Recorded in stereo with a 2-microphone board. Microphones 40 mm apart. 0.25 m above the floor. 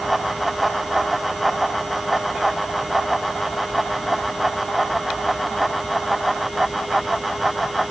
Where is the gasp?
No gasp in this recording.